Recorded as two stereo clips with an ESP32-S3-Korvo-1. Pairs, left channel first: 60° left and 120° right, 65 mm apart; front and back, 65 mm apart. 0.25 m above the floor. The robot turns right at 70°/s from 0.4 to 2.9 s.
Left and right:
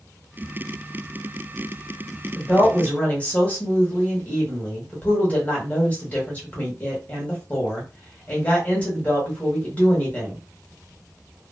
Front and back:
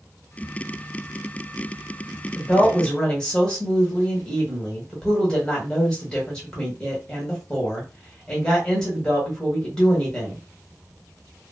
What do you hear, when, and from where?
2.4 s a woman speaking: 20° left, 1.4 m; by 10.4 s 60° left, 1.4 m